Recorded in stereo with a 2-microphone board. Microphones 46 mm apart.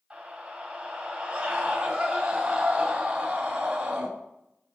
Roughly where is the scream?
Right.